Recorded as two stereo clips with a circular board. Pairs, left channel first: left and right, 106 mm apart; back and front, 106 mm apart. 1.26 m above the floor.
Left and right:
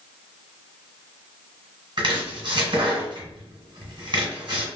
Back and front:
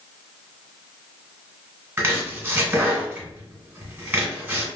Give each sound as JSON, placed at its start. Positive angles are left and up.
{"t": 2.0, "sound": "chopping", "azimuth_deg": -65, "distance_m": 1.8}